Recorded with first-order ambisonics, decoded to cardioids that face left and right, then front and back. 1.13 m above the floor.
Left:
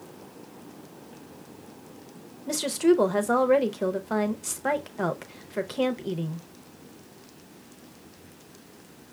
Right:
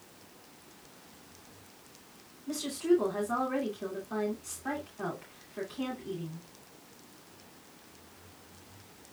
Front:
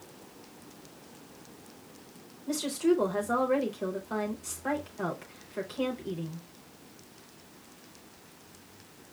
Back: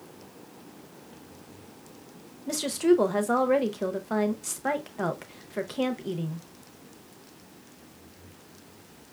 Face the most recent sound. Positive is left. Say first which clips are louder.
# left 6 dB, back 4 dB
turn(degrees=115)